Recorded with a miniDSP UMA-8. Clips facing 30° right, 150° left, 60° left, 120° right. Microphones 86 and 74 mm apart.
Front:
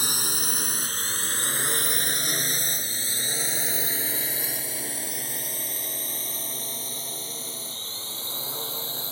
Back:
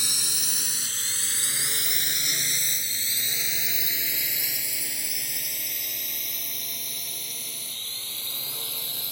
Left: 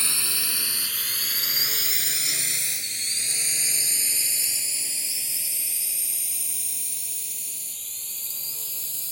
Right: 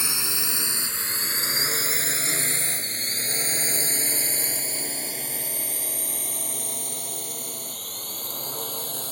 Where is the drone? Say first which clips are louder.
Front 6 dB, right 2 dB; 55° right; by 9.1 s 90° right.